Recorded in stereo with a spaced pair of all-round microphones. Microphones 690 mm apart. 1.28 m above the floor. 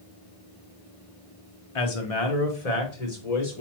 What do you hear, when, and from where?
1.8 s a man speaking: 50° left (ahead or behind), 0.8 m; by 3.6 s 70° left (ahead or behind), 1.7 m